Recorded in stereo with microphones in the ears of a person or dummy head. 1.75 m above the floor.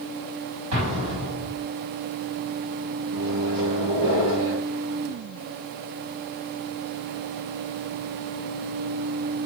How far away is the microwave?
About 2 m.